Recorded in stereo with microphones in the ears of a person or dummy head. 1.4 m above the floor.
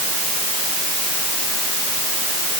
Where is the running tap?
No running tap in this recording.